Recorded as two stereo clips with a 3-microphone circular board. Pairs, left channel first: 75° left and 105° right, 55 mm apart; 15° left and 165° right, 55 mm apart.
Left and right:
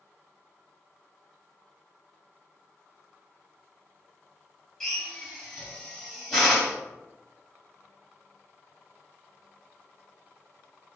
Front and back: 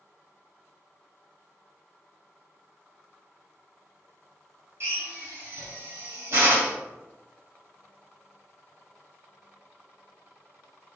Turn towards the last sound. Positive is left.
turn(degrees=155)